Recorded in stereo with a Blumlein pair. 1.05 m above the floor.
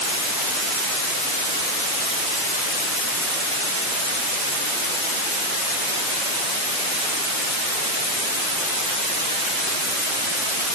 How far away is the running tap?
No running tap in this recording.